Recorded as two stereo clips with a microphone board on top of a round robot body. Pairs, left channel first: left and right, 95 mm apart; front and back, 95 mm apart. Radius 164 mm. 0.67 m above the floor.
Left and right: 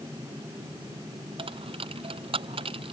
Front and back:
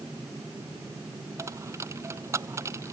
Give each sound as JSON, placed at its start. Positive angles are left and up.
{"t": 1.4, "sound": "a dropped coin", "azimuth_deg": -120}